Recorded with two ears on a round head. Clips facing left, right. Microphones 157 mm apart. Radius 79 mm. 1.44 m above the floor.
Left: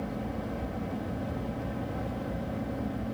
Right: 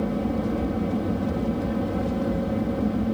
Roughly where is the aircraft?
Right.